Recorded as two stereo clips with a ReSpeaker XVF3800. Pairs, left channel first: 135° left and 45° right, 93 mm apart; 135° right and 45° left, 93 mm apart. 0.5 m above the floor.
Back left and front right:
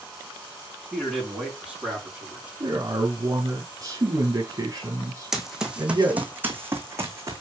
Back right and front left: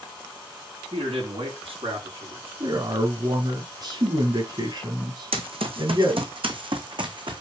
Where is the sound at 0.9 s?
40° left, 5.5 m; by 2.5 s 30° left, 5 m.